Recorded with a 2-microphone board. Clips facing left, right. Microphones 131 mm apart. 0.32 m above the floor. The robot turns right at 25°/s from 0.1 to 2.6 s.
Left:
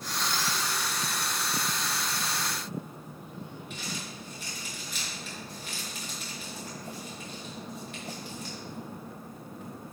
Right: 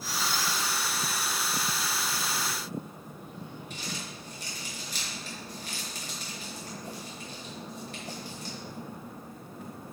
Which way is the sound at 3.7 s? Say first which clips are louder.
Left 1 dB; 40° right (ahead or behind).